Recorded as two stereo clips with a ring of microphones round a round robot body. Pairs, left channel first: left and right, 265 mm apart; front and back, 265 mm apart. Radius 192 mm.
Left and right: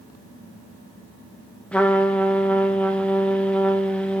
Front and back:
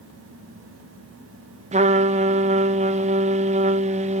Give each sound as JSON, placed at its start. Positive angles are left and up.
{"t": 1.7, "sound": "a trumpet", "azimuth_deg": 170, "distance_m": 0.6}